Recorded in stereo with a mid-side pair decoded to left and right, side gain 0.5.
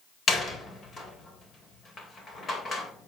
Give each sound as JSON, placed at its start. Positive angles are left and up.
{"t": 0.3, "sound": "a door slam", "azimuth_deg": 35, "distance_m": 3.0}